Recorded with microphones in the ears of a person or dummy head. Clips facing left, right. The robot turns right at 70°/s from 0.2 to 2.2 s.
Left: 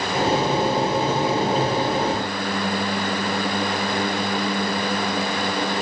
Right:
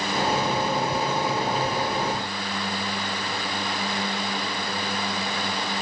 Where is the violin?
I don't hear a violin.